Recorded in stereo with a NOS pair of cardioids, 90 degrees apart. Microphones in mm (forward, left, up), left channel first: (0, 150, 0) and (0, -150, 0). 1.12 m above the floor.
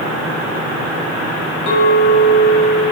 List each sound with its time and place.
1.7 s a clink: 65° left, 1.6 m